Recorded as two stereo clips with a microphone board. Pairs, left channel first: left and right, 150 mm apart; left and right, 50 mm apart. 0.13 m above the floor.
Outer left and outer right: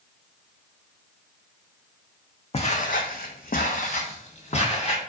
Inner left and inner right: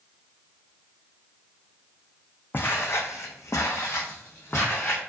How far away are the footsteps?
About 0.5 m.